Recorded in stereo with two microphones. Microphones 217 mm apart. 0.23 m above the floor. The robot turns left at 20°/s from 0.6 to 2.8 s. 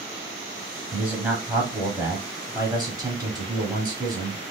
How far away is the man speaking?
About 1.1 m.